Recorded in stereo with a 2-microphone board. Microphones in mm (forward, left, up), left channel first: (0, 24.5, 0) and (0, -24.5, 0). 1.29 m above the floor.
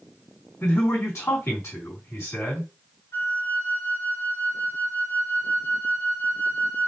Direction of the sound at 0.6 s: 65° left (ahead or behind).